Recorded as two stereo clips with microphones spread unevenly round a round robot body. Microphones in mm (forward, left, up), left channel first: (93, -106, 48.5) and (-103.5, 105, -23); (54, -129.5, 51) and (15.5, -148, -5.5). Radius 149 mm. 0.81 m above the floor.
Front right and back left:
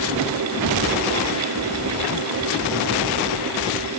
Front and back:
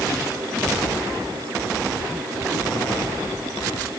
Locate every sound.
Only background noise.